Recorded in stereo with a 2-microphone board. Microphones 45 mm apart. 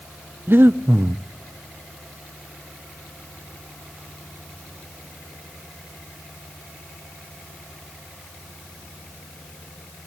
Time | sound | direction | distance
0.5 | breathing | 50° right (ahead or behind) | 0.6 m